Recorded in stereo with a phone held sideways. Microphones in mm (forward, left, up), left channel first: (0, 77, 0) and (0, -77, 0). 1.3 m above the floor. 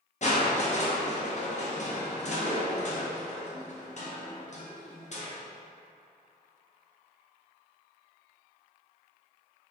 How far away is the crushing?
About 0.5 m.